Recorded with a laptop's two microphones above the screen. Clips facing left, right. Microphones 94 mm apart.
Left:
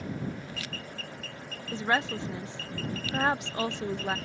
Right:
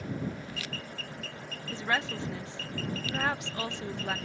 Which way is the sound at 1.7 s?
25° left (ahead or behind).